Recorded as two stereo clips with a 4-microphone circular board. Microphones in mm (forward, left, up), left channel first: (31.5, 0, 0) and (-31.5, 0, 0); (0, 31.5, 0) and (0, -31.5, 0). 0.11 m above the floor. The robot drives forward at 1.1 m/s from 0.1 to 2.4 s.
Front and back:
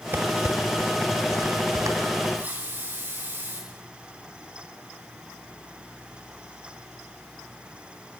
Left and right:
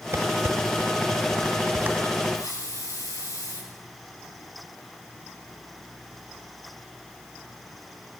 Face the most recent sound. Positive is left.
turn(degrees=120)